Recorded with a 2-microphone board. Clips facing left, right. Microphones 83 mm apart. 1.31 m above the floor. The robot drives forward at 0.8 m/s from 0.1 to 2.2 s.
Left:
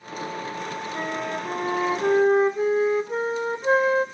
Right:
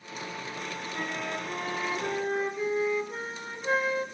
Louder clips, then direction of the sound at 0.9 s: Left 5 dB; 30° left (ahead or behind).